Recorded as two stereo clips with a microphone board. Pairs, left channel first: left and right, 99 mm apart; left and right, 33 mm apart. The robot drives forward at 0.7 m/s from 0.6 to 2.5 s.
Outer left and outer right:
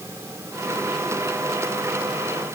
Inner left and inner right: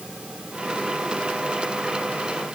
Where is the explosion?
No explosion in this recording.